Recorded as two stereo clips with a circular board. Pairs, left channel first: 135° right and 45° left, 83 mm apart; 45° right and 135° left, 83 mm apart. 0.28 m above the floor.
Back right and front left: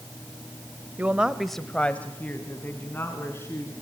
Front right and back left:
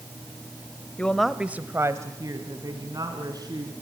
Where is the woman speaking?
5° left, 1.1 m; by 3.7 s 165° left, 3.5 m.